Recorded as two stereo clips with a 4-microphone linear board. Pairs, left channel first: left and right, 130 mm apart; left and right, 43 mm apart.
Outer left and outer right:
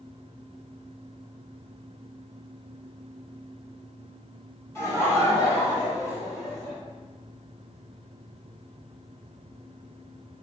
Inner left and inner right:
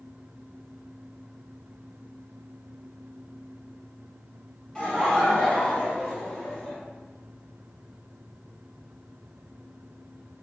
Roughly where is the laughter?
Left.